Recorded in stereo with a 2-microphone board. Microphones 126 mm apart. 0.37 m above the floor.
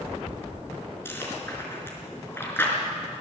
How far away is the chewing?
About 4.5 m.